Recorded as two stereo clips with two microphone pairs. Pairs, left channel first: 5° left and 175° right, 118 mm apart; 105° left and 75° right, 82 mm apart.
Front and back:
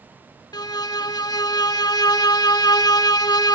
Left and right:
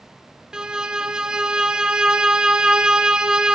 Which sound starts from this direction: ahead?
A violin, at 0.5 s.